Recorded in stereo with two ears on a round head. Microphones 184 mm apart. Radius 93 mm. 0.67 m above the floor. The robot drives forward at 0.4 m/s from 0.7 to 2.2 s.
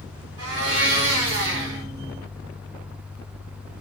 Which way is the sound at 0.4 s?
80° right.